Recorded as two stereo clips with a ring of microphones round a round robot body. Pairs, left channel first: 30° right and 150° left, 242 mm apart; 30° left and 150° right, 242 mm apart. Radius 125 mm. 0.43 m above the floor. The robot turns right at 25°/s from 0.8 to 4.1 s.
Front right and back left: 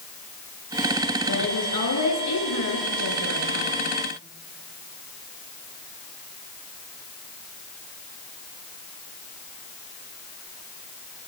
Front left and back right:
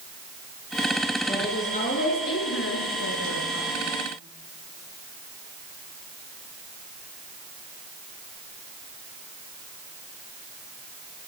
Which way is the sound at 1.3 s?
45° right.